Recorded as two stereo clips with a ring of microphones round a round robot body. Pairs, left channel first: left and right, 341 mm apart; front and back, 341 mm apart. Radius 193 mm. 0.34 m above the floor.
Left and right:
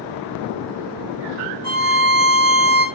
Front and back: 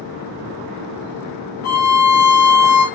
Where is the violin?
40° right, 3 m.